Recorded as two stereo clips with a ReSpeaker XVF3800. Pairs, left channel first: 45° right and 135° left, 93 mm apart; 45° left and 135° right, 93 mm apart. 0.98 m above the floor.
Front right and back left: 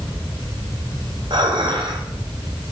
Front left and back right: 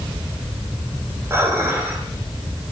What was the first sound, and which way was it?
Dishes clattering, 160° left.